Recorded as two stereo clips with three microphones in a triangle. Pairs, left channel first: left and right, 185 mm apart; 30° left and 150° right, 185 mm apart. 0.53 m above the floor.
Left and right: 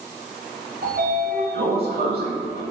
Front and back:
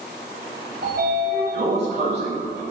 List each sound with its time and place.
0.8 s a sliding door: 125° right, 1.0 m